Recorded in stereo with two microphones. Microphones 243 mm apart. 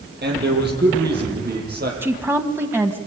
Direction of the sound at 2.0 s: 10° right (ahead or behind).